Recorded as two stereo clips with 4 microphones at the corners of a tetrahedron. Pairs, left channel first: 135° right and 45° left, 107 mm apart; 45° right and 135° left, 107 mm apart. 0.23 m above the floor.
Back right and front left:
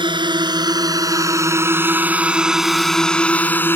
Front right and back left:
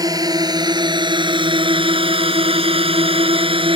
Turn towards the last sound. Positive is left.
turn(degrees=160)